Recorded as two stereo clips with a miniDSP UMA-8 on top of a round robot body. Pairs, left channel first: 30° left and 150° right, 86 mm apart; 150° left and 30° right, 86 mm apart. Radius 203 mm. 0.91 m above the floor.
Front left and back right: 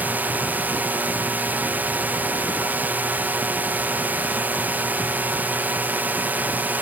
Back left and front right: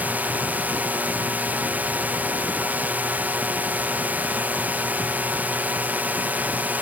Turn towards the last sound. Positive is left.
turn(degrees=-90)